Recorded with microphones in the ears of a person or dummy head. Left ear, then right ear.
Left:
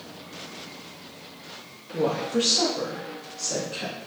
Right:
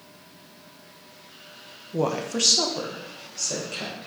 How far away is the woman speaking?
About 0.9 m.